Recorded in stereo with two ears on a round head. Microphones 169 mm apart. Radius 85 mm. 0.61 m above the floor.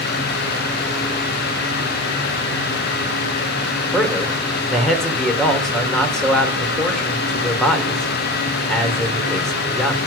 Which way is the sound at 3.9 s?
5° left (ahead or behind).